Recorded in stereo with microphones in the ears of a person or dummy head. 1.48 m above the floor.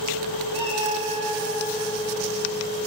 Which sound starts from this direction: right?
A cat meowing, at 0.5 s.